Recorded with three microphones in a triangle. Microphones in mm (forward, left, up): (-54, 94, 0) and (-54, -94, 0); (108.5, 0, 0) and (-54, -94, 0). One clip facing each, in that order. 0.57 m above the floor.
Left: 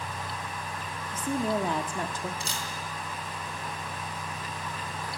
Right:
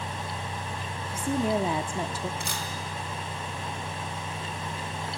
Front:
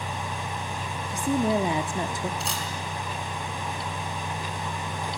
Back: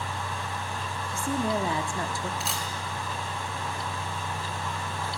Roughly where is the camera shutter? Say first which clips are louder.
Right 2 dB, front 1 dB; ahead right.